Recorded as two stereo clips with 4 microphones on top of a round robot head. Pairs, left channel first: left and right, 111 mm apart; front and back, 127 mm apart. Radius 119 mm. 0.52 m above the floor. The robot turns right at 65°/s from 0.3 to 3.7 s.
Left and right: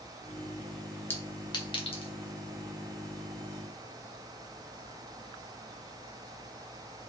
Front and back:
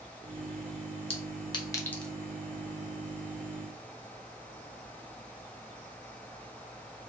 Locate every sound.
1.1 s a clink: 20° left, 0.9 m; by 2.1 s 85° left, 0.9 m